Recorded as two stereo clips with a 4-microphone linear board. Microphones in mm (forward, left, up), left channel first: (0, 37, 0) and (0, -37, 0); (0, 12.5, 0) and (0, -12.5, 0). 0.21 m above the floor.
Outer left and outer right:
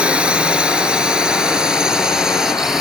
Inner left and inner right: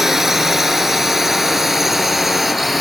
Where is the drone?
15° right (ahead or behind); by 2.8 s 5° right (ahead or behind).